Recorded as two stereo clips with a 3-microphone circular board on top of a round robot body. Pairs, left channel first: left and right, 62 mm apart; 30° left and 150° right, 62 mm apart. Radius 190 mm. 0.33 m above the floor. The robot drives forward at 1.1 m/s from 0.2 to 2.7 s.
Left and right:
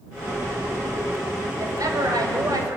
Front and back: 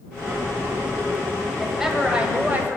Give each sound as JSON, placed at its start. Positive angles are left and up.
{"t": 1.6, "sound": "a woman speaking", "azimuth_deg": -60, "distance_m": 2.5}